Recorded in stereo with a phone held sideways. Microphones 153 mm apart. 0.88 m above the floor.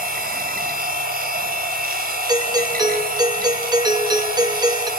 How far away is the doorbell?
About 2 m.